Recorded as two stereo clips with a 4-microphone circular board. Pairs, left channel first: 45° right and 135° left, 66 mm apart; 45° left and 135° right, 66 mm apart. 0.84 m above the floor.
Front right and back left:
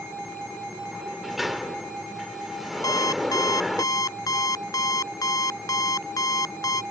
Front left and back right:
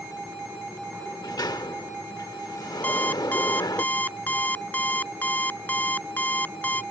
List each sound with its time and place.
0.9 s a sliding door: 45° left
2.8 s an alarm clock: 20° right